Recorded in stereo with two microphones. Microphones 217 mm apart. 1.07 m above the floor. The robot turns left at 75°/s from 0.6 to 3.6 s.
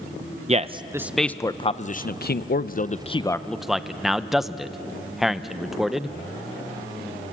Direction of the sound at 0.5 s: 30° right (ahead or behind).